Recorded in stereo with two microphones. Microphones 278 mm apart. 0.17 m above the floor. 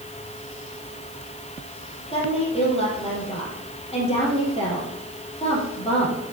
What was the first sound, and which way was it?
A woman speaking, 20° left (ahead or behind).